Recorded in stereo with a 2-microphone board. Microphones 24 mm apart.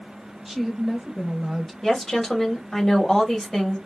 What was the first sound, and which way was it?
A woman speaking, 10° right (ahead or behind).